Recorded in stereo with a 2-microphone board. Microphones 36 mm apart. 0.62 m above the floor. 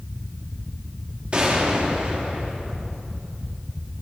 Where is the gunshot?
30° right (ahead or behind), 1.2 m.